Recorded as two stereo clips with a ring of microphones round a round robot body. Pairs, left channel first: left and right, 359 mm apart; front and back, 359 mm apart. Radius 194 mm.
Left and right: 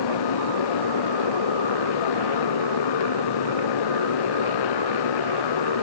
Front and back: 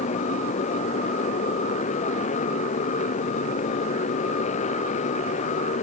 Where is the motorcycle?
75° left.